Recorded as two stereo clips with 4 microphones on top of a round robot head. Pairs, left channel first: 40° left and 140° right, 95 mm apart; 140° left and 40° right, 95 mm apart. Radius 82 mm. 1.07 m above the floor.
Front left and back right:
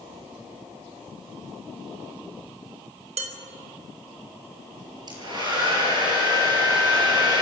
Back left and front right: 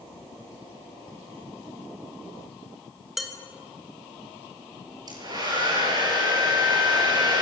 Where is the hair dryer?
90° right, 6 m.